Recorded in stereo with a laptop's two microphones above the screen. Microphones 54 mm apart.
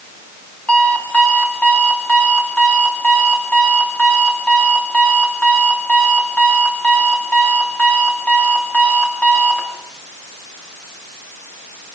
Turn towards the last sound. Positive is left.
turn(degrees=20)  # may be behind; listen again after turning